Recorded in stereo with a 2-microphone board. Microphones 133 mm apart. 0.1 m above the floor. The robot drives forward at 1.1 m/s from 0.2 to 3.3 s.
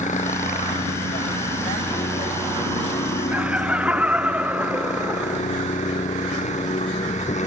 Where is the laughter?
10° right (ahead or behind).